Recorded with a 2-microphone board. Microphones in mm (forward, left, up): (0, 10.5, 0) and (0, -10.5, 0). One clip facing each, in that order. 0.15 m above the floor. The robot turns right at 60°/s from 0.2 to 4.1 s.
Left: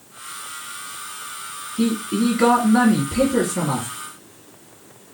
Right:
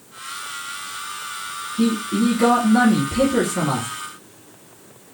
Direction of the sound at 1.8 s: 85° left.